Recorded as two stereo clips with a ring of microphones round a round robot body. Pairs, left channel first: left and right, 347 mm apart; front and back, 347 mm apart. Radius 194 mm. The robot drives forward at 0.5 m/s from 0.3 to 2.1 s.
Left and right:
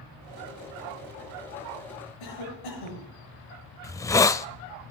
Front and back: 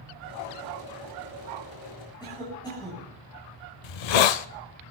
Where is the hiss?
10° left, 0.8 m.